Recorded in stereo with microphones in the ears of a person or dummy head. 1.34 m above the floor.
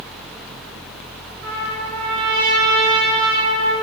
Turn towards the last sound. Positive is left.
turn(degrees=-75)  # may be behind; listen again after turning